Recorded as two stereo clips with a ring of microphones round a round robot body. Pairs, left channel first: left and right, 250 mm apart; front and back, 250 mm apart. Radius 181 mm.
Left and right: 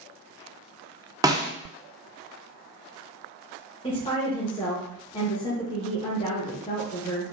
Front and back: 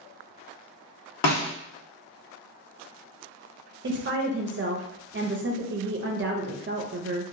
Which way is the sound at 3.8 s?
155° left.